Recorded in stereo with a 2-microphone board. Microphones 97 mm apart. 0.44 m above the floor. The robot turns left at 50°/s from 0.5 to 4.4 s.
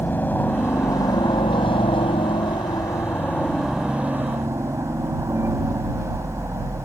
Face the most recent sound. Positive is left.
turn(degrees=-35)